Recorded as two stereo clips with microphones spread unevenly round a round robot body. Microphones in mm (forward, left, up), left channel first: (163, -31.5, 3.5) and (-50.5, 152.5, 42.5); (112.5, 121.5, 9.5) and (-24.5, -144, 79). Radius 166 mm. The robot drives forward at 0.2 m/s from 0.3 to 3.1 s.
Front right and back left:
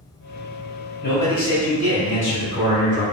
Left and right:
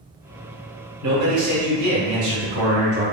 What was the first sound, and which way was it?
A man speaking, 85° right.